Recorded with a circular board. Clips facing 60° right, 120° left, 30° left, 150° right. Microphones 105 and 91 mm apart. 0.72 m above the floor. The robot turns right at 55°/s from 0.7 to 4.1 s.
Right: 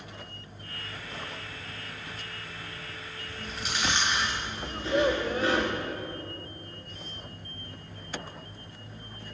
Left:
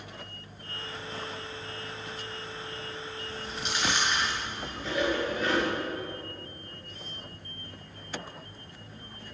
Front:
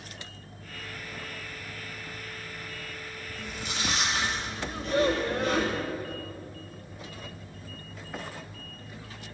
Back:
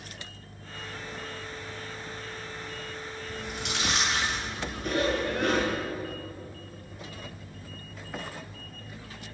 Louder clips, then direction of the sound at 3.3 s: Even, back 2 dB; 165° right.